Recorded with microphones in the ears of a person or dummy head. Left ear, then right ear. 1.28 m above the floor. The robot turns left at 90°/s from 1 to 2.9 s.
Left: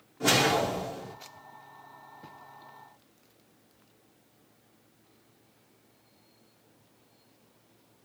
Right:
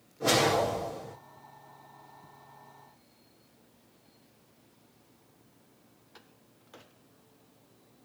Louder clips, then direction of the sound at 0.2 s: Left 1 dB; 80° left.